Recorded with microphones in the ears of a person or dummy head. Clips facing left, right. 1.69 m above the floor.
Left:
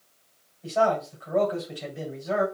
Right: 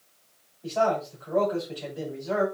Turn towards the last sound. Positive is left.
turn(degrees=15)  # may be behind; listen again after turning